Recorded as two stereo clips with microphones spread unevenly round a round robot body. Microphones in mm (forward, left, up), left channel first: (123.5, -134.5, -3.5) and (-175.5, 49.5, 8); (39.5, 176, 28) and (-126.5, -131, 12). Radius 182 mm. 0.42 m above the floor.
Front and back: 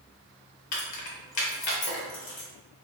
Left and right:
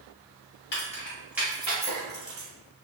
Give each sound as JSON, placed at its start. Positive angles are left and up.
{"t": 0.7, "sound": "keys jangling", "azimuth_deg": 5, "distance_m": 0.7}